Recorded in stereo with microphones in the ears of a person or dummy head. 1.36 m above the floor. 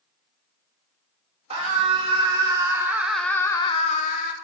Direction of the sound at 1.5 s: 35° right (ahead or behind).